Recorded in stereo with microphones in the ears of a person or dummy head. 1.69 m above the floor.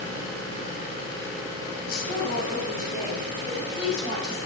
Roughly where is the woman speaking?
Left.